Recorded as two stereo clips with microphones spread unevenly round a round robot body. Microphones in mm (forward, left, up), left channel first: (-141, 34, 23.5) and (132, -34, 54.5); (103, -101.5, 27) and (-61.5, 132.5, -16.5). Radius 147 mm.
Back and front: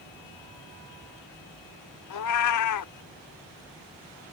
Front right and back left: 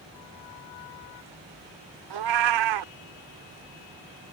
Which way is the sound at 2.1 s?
135° left.